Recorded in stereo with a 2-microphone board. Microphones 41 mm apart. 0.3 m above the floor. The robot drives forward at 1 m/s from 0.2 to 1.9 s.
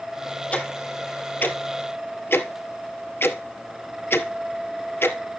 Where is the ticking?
35° left (ahead or behind), 2.5 m; by 5.2 s 65° left (ahead or behind), 1.7 m.